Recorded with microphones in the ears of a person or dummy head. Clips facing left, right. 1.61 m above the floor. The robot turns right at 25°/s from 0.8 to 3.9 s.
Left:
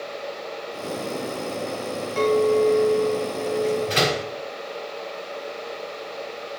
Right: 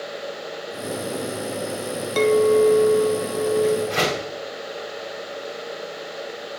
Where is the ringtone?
No ringtone in this recording.